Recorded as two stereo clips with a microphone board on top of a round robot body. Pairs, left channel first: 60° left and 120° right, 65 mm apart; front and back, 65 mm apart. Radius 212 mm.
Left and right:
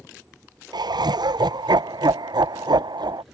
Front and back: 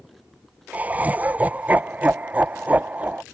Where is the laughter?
115° right.